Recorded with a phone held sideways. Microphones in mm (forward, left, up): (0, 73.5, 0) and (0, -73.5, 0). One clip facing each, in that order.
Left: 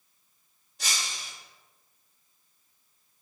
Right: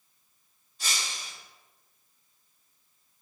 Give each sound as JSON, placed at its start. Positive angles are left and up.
{"t": 0.8, "sound": "breaking glass", "side_deg": 70, "distance_m": 1.2}